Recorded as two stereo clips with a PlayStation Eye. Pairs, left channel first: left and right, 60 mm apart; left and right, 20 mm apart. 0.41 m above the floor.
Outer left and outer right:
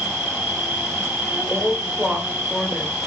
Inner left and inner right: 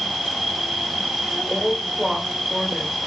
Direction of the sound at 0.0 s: 20° right (ahead or behind).